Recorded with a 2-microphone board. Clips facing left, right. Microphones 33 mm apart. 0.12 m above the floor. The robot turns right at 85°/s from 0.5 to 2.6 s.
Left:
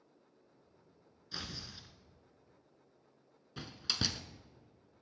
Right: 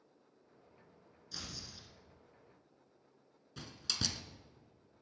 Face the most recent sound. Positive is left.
turn(degrees=20)  # may be behind; listen again after turning